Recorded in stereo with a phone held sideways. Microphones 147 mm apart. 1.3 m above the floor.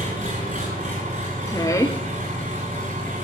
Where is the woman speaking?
20° left (ahead or behind), 0.7 m.